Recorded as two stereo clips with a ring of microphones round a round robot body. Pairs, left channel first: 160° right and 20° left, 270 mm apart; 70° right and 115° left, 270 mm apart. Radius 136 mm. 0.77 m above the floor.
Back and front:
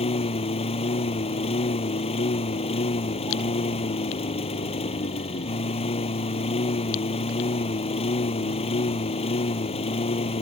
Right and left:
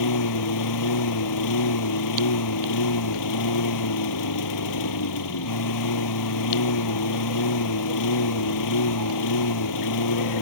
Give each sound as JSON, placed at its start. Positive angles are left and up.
{"t": 0.0, "sound": "a lawn mower", "azimuth_deg": -90}